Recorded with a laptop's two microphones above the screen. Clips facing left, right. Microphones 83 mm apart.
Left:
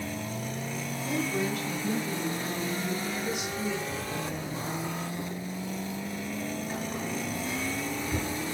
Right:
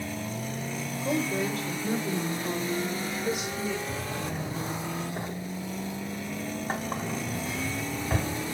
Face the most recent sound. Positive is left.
turn(degrees=-65)  # may be behind; listen again after turning